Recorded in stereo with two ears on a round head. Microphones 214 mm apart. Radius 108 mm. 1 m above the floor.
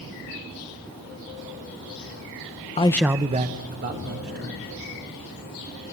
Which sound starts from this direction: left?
A man speaking, at 2.8 s.